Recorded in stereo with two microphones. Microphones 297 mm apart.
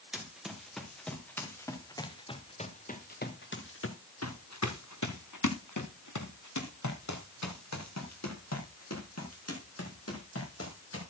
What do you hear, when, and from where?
0.1 s running footsteps: 5° right (ahead or behind), 4 m; by 11.0 s 50° left (ahead or behind), 6 m